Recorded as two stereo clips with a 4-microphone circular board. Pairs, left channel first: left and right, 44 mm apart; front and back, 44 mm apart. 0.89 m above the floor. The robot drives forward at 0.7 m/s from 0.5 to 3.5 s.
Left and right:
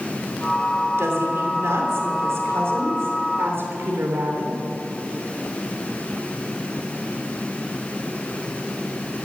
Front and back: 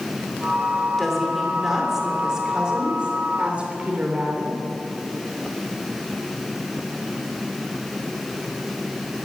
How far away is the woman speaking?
About 3 m.